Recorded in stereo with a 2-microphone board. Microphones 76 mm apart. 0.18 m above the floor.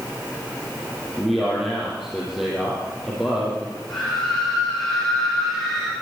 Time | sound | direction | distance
1.2 | a man speaking | 5° right (ahead or behind) | 6.5 m
3.9 | a scream | centre (ahead or behind) | 9.5 m